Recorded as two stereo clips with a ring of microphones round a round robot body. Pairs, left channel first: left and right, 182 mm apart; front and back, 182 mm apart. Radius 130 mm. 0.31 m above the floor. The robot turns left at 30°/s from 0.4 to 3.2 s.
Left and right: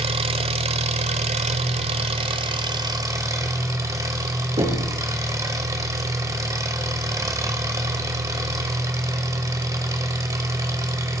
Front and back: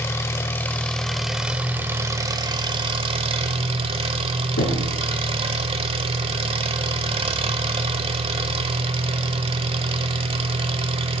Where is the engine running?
65° right, 0.8 m; by 11.2 s 150° right, 0.8 m.